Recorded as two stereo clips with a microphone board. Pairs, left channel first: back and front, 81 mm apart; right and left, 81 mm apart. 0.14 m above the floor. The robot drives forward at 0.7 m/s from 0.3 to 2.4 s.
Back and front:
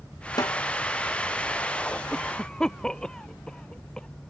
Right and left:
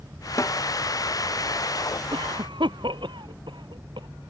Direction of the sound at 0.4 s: 140° right.